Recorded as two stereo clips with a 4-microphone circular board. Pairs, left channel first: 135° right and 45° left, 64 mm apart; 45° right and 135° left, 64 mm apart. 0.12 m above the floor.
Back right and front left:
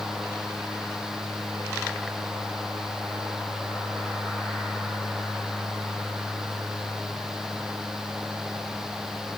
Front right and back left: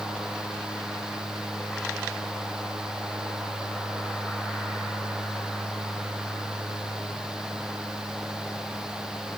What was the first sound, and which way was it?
Only background noise.